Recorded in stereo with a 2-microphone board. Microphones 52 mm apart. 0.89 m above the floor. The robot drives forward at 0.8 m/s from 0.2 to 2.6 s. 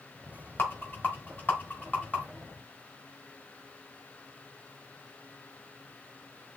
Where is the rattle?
35° left (ahead or behind), 2 m; by 2.2 s 20° left (ahead or behind), 3 m.